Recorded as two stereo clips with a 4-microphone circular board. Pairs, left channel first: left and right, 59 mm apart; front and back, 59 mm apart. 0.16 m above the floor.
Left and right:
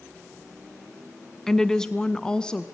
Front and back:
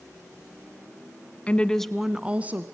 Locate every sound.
1.5 s a woman speaking: 15° left, 1.0 m; by 2.6 s 155° left, 1.2 m